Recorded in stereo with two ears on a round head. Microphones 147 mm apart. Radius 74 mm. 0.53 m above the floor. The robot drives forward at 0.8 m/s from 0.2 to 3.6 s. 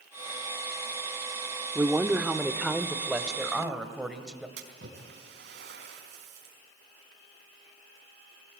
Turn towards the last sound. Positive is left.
turn(degrees=-75)  # may be behind; listen again after turning